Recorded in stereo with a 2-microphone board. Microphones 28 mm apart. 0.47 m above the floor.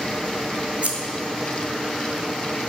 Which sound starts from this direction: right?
Scissors, at 0.8 s.